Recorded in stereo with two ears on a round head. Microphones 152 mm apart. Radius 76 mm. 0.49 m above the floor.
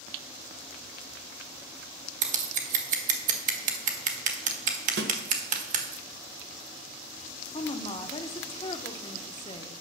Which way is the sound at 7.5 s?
30° left (ahead or behind).